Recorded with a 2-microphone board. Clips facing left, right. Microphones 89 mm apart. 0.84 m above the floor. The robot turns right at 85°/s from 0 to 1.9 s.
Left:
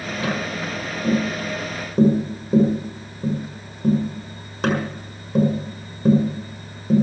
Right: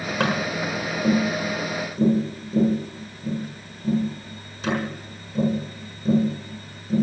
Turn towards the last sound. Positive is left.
turn(degrees=55)  # may be behind; listen again after turning